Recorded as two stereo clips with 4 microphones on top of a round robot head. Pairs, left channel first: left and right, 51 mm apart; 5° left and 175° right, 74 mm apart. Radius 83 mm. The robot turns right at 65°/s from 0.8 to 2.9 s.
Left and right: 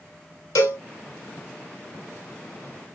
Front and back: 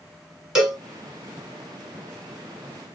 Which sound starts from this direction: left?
A cowbell, at 0.6 s.